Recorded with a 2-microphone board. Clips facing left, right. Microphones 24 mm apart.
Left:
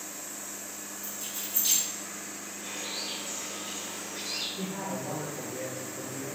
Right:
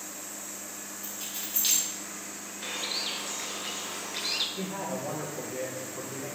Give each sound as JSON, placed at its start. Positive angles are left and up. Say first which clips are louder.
{"t": 1.0, "sound": "keys jangling", "louder": "right 1 dB", "side_deg": -60, "distance_m": 1.3}
{"t": 2.6, "sound": "a bird", "louder": "right 4 dB", "side_deg": -75, "distance_m": 0.5}
{"t": 4.6, "sound": "a man speaking", "louder": "right 1 dB", "side_deg": -65, "distance_m": 1.0}